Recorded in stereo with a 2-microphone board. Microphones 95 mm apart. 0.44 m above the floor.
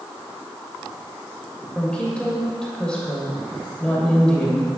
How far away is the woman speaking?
About 1.9 m.